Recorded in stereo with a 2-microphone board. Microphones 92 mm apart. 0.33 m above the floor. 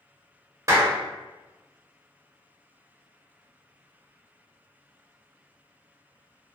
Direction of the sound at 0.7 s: 35° right (ahead or behind).